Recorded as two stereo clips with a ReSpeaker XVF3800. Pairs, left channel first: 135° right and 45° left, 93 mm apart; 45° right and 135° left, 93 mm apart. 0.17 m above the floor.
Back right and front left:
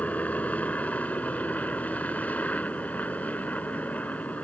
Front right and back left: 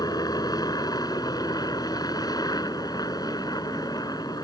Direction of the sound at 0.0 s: 65° right.